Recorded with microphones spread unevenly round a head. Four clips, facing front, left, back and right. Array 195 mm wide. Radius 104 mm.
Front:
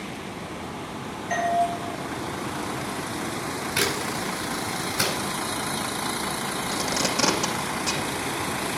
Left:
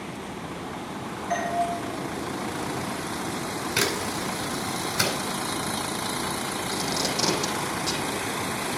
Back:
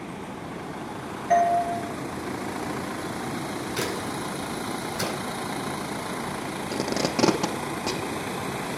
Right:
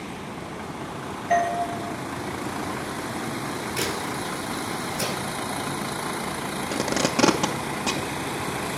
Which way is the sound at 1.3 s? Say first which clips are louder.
Right 4 dB, back 4 dB; 175° right.